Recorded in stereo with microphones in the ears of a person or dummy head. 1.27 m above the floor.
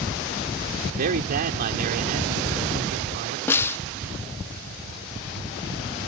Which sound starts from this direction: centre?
A snare drum, at 3.5 s.